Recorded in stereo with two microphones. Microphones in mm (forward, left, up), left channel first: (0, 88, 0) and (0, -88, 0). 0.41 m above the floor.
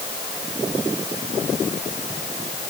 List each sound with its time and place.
Only background noise.